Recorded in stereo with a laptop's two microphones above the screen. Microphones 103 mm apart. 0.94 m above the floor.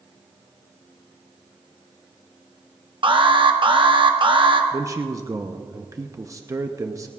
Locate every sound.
3.0 s an alarm: 55° right (ahead or behind), 0.8 m
4.7 s a man speaking: 30° right (ahead or behind), 0.7 m